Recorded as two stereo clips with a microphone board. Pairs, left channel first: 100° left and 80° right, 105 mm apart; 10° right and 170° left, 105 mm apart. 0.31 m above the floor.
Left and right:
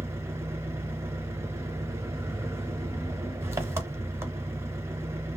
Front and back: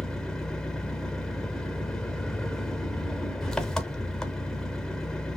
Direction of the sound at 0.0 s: 95° right.